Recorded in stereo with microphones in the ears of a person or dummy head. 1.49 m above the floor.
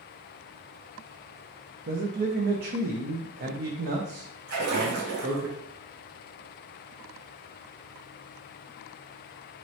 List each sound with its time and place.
1.9 s a man speaking: 50° right (ahead or behind), 0.5 m
4.5 s a splash: 65° right (ahead or behind), 1.2 m